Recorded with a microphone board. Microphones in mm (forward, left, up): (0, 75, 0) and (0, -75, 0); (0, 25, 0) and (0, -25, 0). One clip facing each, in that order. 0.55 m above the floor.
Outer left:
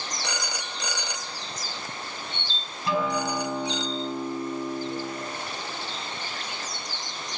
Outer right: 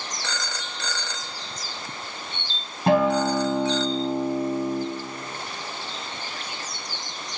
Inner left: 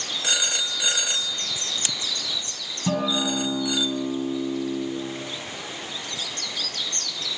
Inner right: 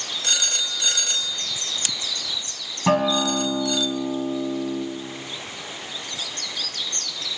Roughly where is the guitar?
Right.